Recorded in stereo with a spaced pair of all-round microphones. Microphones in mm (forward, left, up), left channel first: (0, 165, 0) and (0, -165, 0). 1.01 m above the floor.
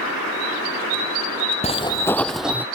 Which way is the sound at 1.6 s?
20° left (ahead or behind).